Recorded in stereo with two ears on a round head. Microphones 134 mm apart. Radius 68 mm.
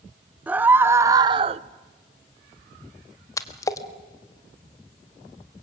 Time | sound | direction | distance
0.5 | a scream | 10° right (ahead or behind) | 1.5 m
3.4 | a splash | 20° left (ahead or behind) | 1.3 m